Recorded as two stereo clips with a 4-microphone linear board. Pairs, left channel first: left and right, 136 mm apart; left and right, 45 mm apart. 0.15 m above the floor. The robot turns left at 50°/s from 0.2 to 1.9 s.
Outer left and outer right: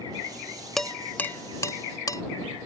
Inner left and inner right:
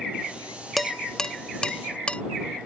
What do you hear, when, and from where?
0.8 s dishes clattering: centre (ahead or behind); by 2.2 s 25° left (ahead or behind)